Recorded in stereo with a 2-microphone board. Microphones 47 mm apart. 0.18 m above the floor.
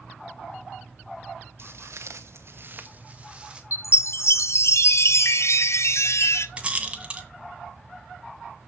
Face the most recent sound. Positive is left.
turn(degrees=-25)  # may be behind; listen again after turning